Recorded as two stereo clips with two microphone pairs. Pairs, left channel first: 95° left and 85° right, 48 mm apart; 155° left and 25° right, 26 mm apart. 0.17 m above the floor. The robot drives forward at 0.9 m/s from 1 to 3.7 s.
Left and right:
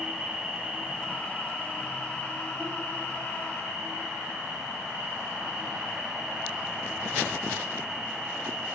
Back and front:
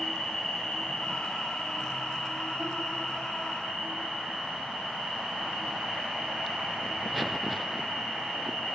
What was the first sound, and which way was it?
An insect, 155° right.